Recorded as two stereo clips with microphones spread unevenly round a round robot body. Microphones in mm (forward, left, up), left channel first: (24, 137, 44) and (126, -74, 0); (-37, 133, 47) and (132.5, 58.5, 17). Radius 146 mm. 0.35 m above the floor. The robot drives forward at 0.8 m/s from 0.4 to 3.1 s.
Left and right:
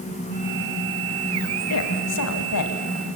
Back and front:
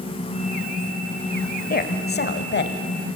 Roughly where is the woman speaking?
Behind left.